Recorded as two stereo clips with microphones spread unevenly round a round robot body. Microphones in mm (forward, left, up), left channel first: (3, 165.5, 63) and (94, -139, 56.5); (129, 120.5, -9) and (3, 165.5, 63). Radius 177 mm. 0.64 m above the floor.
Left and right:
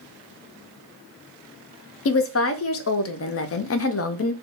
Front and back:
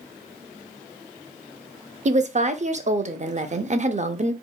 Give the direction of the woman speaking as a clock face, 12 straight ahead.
9 o'clock.